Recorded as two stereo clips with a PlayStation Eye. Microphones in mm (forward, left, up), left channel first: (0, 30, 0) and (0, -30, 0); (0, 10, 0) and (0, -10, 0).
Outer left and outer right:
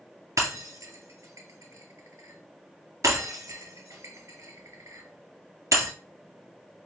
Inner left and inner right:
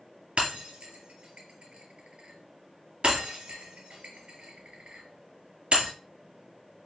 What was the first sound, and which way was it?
Breaking glass, 55° right (ahead or behind).